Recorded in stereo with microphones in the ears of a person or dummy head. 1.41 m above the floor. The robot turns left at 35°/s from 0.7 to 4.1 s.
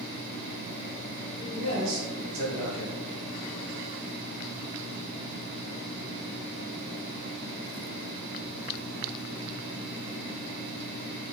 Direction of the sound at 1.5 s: 60° right.